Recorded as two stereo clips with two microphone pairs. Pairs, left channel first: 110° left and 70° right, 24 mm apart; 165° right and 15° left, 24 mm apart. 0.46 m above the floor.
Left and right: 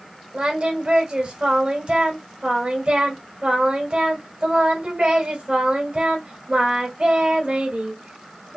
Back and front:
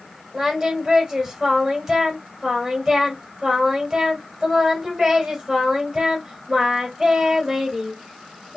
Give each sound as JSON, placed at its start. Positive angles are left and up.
{"t": 0.3, "sound": "singing", "azimuth_deg": -55, "distance_m": 2.0}